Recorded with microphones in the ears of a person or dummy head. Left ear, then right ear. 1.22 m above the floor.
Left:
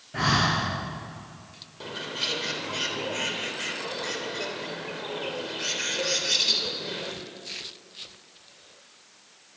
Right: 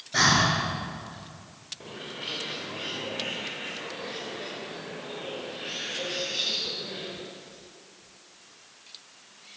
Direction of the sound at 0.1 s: 75° right (ahead or behind).